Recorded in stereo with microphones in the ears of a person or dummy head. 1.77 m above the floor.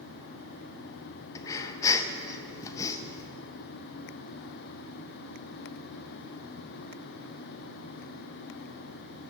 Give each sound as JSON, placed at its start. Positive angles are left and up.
{"t": 1.4, "sound": "breathing", "side_deg": 15, "distance_m": 0.5}